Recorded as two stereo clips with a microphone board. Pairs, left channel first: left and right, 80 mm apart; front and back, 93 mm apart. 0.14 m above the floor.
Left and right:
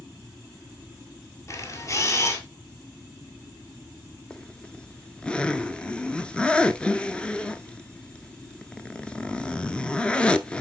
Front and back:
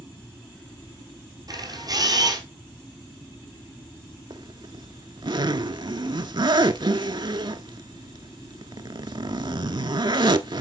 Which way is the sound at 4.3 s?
165° left.